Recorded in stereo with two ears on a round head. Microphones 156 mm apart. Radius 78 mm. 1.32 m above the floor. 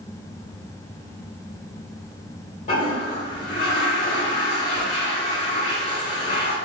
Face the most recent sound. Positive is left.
turn(degrees=40)  # may be behind; listen again after turning